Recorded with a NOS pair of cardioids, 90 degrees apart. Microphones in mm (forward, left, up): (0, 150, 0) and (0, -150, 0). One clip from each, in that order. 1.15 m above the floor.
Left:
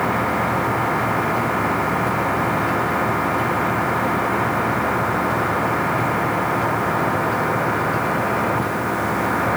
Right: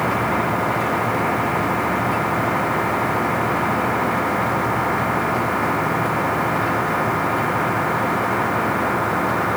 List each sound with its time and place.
Only background noise.